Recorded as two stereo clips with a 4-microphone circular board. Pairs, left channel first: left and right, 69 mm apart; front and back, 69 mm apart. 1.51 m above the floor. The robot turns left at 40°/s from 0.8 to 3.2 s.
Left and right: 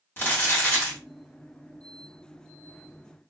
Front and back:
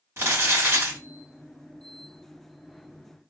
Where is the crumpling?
140° left, 1.2 m; by 1.0 s 135° left, 1.2 m.